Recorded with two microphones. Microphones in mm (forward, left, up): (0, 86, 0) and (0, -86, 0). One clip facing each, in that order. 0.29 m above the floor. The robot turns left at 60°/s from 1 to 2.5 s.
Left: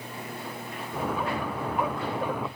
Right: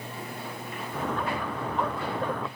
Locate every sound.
Only background noise.